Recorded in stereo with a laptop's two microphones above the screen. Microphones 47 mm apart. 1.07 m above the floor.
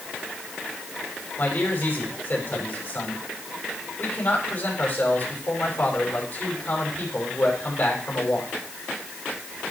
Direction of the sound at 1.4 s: 45° left (ahead or behind).